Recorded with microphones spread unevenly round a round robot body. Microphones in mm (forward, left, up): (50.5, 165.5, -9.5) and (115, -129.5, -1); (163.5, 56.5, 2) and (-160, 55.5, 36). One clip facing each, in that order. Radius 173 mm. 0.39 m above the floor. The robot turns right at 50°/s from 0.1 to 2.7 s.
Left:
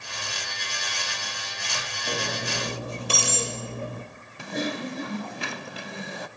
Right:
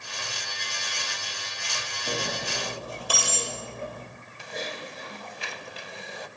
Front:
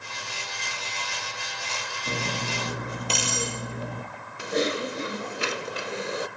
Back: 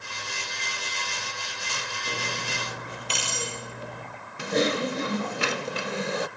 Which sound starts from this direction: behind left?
Typing on a keyboard, at 4.4 s.